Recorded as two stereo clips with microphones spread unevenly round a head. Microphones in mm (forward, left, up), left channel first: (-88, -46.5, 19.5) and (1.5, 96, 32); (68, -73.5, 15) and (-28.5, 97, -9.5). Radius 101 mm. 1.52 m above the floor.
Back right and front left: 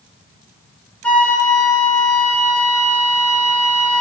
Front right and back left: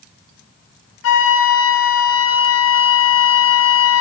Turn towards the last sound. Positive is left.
turn(degrees=-40)